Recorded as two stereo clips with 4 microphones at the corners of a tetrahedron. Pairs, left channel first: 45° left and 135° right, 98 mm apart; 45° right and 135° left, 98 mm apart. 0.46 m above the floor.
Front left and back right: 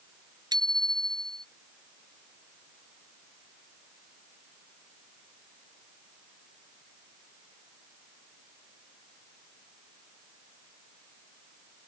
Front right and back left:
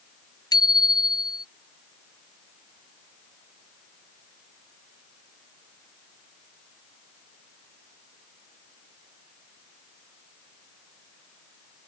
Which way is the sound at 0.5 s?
90° right.